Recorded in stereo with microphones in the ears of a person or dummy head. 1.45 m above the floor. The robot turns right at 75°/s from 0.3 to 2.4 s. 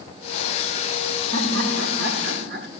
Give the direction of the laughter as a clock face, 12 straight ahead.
5 o'clock.